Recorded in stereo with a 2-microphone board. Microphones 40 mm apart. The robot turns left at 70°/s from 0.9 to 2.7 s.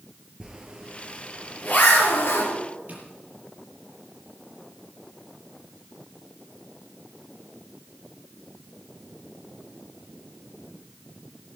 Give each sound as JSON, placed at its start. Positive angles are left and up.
{"t": 0.4, "sound": "a zipper", "side_deg": -15, "distance_m": 3.0}
{"t": 2.9, "sound": "tapping", "side_deg": -40, "distance_m": 6.0}